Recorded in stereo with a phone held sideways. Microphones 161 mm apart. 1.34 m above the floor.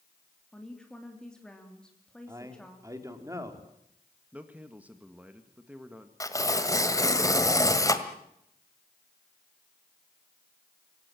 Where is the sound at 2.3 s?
20° right (ahead or behind), 3.5 m.